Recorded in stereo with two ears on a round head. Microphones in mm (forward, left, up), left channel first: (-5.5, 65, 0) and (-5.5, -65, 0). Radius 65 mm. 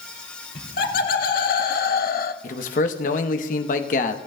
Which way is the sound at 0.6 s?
65° left (ahead or behind).